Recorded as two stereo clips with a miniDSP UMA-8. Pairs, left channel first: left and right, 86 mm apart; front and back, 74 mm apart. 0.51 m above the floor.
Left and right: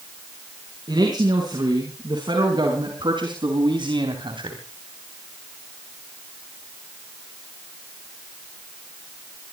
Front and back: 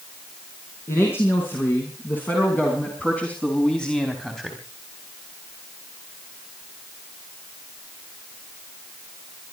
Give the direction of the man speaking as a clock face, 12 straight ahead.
2 o'clock.